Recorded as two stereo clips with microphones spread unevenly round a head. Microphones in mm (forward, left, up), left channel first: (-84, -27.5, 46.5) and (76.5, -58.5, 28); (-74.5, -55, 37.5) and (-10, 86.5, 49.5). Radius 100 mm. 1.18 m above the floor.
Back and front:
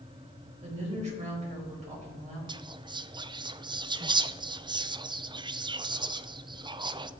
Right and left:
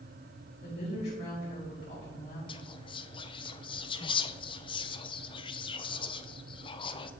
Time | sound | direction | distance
0.6 | a woman speaking | 60° right | 6 m
2.5 | whispering | 65° right | 0.8 m